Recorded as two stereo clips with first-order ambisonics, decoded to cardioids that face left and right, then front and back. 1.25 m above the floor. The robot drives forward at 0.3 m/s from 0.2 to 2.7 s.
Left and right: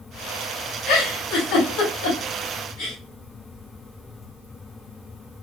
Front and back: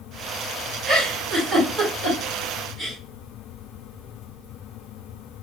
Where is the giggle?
100° left, 2.5 m; by 3.0 s 115° left, 2.5 m.